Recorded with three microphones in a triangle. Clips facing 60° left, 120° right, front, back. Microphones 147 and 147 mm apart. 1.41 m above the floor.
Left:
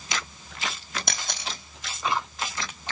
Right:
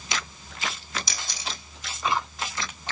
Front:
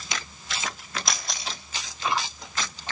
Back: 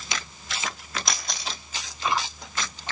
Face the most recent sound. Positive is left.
turn(degrees=90)